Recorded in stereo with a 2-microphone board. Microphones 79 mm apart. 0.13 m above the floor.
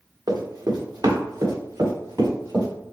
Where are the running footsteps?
60° right (ahead or behind), 1.5 m; by 2.7 s 55° right (ahead or behind), 4 m.